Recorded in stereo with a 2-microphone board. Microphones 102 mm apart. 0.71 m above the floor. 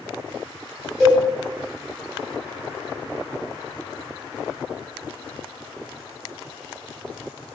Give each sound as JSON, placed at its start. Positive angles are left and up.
{"t": 1.0, "sound": "a cowbell", "side_deg": 5, "distance_m": 1.7}